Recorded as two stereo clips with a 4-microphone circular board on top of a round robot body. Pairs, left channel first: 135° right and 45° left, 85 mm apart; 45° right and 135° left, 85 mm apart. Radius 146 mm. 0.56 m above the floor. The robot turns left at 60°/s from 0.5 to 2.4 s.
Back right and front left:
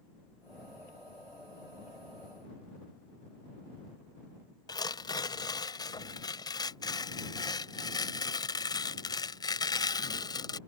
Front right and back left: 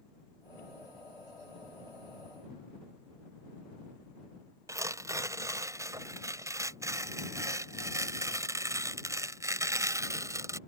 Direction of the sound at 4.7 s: 175° right.